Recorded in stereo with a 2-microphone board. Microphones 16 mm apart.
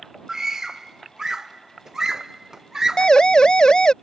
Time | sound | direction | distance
0.3 | a scream | 40° right (ahead or behind) | ?
3.0 | a siren | 75° left (ahead or behind) | ?